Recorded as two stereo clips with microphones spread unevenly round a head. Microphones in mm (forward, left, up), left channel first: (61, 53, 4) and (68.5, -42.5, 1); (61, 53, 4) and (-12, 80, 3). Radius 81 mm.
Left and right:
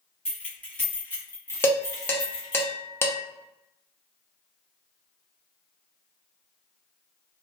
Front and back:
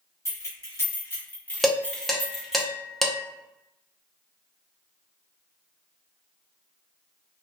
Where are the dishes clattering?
65° left, 0.8 m.